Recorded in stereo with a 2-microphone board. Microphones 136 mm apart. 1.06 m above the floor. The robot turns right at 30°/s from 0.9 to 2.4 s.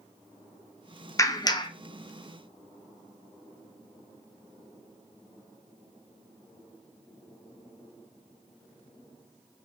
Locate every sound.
1.2 s a clap: 25° left (ahead or behind), 0.5 m; by 1.7 s 35° left (ahead or behind), 0.5 m